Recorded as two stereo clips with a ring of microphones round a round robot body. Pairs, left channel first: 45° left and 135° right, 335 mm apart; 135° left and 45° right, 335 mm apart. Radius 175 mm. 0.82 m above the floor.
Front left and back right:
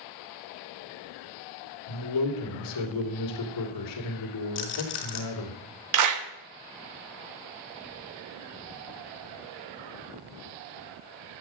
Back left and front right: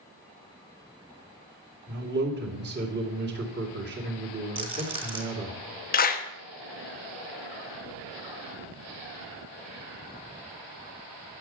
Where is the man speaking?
15° left, 2.5 m.